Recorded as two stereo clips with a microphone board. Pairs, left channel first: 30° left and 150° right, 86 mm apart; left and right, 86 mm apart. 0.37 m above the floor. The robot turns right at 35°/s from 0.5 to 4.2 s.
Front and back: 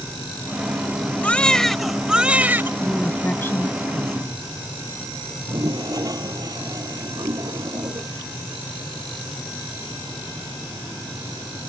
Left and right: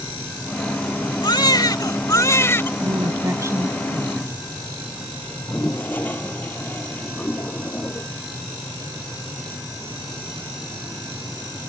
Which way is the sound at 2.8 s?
55° right.